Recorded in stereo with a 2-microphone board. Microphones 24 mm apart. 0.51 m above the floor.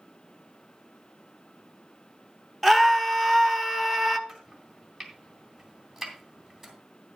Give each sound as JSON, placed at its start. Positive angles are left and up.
{"t": 2.6, "sound": "a scream", "side_deg": 5, "distance_m": 1.2}
{"t": 4.3, "sound": "chopping", "side_deg": -5, "distance_m": 2.5}